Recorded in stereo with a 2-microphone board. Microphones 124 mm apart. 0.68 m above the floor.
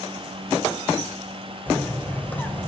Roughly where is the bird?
Centre.